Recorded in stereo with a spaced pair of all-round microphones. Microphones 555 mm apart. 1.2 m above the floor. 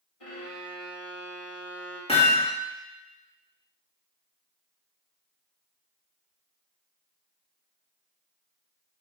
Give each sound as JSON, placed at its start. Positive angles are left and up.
{"t": 0.2, "sound": "a violin", "side_deg": 70, "distance_m": 2.5}
{"t": 2.1, "sound": "hammering", "side_deg": 10, "distance_m": 1.9}